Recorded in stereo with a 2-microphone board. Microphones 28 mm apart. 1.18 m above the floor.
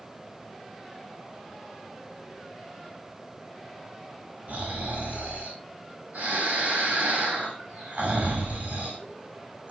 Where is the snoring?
85° right, 5 m.